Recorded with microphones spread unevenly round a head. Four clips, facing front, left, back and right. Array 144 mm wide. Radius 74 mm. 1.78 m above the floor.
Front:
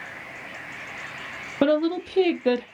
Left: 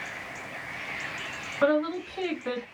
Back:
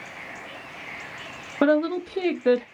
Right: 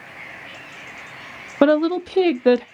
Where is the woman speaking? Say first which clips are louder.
Right 8 dB, even; 90° right, 0.6 m.